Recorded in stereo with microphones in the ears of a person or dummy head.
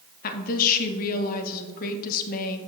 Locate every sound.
0.2 s a woman speaking: 55° left (ahead or behind), 0.9 m